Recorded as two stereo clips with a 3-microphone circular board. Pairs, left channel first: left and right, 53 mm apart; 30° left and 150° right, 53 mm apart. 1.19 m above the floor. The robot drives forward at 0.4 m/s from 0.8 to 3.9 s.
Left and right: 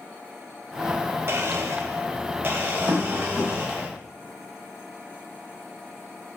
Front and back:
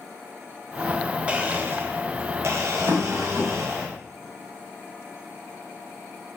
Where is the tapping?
165° right, 1.4 m; by 3.5 s 170° right, 1.7 m.